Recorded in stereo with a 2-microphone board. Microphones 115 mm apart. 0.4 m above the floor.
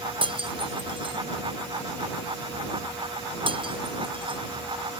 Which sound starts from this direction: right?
Breaking glass, at 0.2 s.